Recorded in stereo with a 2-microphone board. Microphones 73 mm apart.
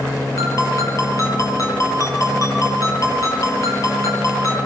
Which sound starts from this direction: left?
A ringtone, at 0.4 s.